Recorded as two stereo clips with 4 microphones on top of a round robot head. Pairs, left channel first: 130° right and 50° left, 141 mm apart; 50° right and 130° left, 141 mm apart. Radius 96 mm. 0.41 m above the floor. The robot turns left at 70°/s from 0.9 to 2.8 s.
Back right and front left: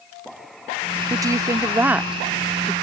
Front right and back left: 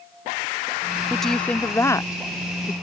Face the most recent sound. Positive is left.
turn(degrees=-75)